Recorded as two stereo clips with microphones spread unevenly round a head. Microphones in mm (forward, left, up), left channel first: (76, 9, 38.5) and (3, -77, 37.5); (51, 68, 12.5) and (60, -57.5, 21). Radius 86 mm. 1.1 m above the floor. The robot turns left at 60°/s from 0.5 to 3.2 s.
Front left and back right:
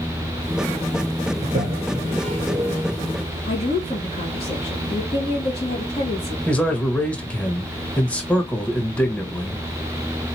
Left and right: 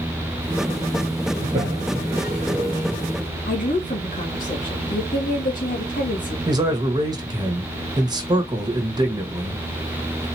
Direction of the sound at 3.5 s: 95° left.